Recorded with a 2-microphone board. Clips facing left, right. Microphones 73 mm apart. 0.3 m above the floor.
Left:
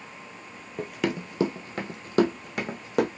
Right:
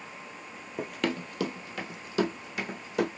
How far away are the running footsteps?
About 0.5 m.